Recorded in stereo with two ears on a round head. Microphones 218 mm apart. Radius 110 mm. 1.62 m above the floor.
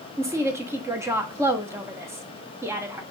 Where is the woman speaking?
10° right (ahead or behind), 0.8 m.